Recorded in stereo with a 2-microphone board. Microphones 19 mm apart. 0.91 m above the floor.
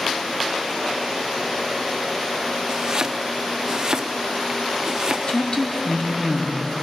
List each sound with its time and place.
2.7 s chopping: 30° right (ahead or behind), 0.6 m
5.3 s a woman speaking: 50° left (ahead or behind), 1.7 m